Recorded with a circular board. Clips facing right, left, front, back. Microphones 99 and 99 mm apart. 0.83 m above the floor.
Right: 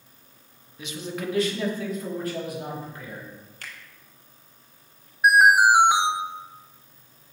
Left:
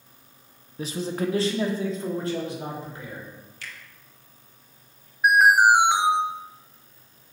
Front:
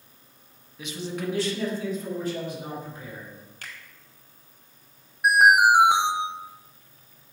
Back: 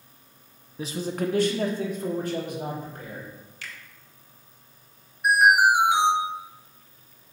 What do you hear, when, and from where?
0.8 s a man speaking: 130° left, 0.7 m; by 3.3 s 155° left, 3 m
3.6 s a finger snap: 45° right, 1.3 m
5.2 s an alarm: 10° right, 1.7 m